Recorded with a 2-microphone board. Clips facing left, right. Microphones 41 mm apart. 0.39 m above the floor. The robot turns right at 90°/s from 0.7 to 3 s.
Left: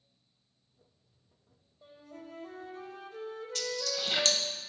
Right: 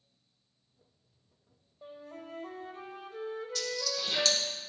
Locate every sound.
1.8 s a flute: 120° right, 0.8 m; by 4.4 s 15° right, 0.8 m
3.5 s a dropped coin: 60° left (ahead or behind), 0.9 m